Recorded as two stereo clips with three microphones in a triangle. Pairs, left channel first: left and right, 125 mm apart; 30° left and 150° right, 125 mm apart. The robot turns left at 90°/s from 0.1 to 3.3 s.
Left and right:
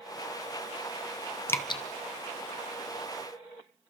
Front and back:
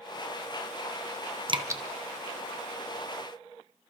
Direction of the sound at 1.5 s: 165° left.